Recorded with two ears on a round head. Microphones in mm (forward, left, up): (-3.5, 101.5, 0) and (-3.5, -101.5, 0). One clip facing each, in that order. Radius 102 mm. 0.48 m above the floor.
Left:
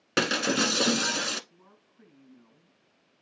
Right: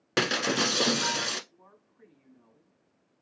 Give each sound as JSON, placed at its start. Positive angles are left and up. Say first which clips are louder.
{"t": 0.2, "sound": "breaking glass", "louder": "left 1 dB", "side_deg": 10, "distance_m": 0.8}
{"t": 1.5, "sound": "a woman speaking", "louder": "even", "side_deg": 45, "distance_m": 4.0}